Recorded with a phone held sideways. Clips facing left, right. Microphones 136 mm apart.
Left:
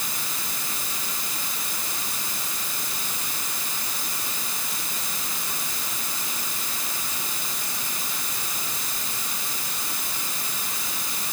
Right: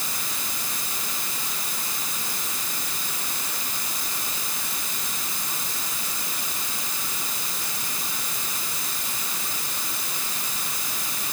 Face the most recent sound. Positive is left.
No sound to turn to.